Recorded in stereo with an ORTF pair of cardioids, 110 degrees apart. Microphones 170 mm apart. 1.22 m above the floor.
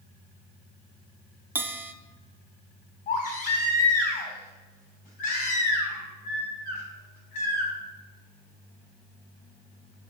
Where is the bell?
10° right, 0.6 m.